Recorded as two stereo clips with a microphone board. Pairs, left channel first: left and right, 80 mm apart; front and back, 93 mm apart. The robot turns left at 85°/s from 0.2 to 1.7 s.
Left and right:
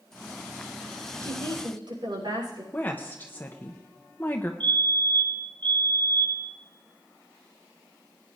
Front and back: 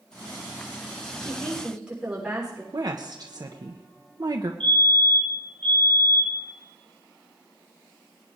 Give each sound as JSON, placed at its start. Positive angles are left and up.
{"t": 1.2, "sound": "a woman speaking", "azimuth_deg": -55, "distance_m": 6.5}
{"t": 2.7, "sound": "a woman speaking", "azimuth_deg": 150, "distance_m": 0.9}
{"t": 4.6, "sound": "a fire alarm", "azimuth_deg": -75, "distance_m": 4.0}